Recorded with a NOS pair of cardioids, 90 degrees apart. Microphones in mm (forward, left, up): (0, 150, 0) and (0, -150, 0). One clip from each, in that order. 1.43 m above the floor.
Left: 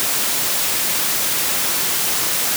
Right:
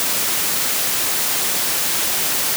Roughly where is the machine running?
No machine running in this recording.